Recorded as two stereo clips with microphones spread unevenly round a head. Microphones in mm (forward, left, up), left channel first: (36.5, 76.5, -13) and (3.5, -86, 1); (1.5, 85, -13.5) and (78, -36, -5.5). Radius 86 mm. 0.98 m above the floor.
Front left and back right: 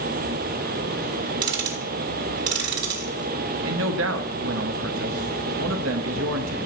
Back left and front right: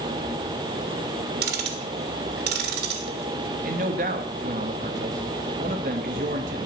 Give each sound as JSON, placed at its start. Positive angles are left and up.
{"t": 1.4, "sound": "ticking", "azimuth_deg": -85, "distance_m": 3.0}
{"t": 3.6, "sound": "a man speaking", "azimuth_deg": -105, "distance_m": 1.1}